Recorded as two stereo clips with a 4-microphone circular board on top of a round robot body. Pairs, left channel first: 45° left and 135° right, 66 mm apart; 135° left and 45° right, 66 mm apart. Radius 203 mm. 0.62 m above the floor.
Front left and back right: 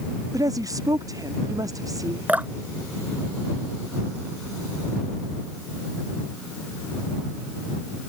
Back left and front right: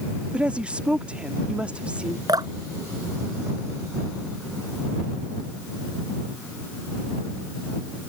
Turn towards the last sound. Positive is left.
turn(degrees=-70)